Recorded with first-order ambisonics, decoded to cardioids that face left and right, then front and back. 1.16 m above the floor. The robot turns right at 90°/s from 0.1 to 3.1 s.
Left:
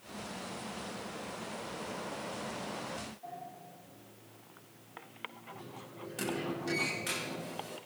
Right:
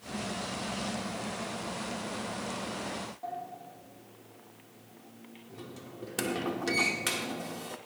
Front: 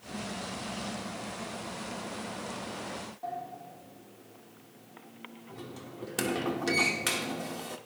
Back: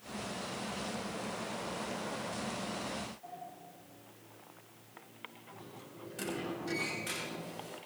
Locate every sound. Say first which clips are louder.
3.2 s a sliding door: right 6 dB, front 9 dB; 35° right, 2.5 m